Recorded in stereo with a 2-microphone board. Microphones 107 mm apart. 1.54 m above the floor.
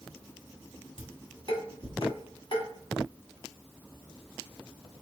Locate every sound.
1.0 s dishes clattering: 60° left (ahead or behind), 1.8 m